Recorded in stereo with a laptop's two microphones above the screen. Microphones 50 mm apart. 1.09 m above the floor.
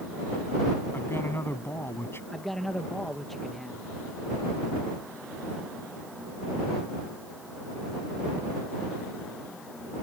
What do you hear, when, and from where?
0.9 s a man speaking: 50° left (ahead or behind)
2.3 s a man speaking: 5° left (ahead or behind)